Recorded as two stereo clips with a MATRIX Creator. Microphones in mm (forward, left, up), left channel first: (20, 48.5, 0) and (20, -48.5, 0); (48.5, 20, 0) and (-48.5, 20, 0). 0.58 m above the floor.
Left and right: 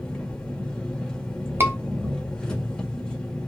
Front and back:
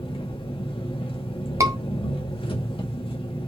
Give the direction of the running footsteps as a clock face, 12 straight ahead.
I don't hear running footsteps.